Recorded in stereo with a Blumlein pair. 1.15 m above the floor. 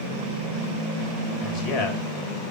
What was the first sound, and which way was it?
A man speaking, 35° left.